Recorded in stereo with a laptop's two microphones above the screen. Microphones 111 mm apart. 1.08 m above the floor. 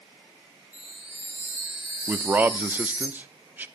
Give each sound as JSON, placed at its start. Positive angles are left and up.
{"t": 0.7, "sound": "a chime", "side_deg": -20, "distance_m": 1.5}
{"t": 2.1, "sound": "a man speaking", "side_deg": -15, "distance_m": 0.5}